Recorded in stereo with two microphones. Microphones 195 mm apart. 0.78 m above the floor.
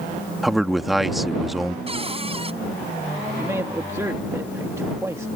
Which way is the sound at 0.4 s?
Centre (ahead or behind).